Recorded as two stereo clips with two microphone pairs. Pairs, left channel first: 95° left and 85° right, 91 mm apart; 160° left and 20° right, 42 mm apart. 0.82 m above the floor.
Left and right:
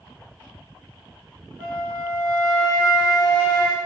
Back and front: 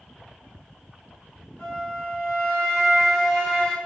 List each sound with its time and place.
1.6 s a flute: 130° right, 1.0 m